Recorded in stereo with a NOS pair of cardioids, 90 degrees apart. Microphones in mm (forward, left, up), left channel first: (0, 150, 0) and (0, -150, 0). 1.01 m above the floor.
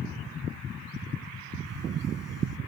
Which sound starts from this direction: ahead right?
A camera shutter, at 1.7 s.